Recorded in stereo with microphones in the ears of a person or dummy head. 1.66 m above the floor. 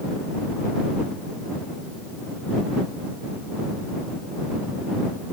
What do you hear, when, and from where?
Only background noise.